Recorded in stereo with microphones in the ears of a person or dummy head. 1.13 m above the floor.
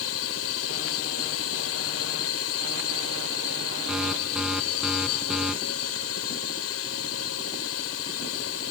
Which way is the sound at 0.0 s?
75° left (ahead or behind).